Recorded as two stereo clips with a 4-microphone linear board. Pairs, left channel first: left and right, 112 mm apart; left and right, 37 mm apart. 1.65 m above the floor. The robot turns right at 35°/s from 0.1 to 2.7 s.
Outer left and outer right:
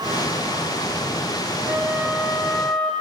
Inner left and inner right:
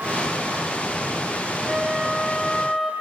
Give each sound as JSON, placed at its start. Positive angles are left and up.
{"t": 1.7, "sound": "a flute", "azimuth_deg": -25, "distance_m": 0.6}